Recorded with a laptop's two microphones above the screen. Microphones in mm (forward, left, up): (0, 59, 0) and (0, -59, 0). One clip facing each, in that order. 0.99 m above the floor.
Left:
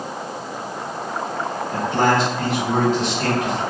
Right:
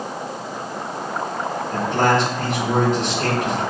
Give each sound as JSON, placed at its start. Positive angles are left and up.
{"t": 1.7, "sound": "a man speaking", "side_deg": 5, "distance_m": 1.9}